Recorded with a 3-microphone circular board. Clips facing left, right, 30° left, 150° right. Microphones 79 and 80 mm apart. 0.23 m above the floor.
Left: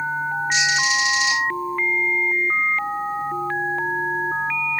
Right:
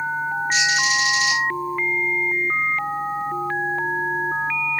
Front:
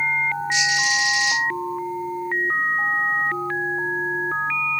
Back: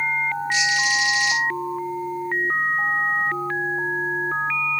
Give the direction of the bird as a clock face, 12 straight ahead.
1 o'clock.